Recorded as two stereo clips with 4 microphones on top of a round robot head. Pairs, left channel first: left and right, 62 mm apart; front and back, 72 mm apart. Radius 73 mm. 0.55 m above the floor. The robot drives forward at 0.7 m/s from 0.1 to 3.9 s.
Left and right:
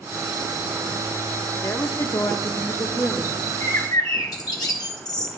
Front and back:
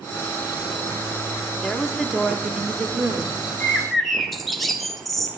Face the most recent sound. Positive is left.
turn(degrees=90)